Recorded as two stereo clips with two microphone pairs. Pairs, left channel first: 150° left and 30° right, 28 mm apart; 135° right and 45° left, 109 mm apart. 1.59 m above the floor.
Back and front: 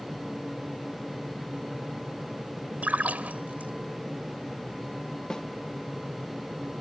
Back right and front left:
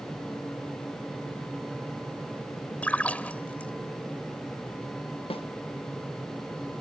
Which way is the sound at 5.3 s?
150° right.